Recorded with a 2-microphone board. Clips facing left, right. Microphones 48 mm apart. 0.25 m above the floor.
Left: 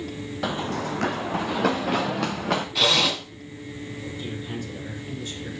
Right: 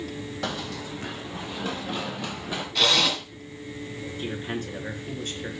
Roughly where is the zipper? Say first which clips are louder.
Right 1 dB; centre.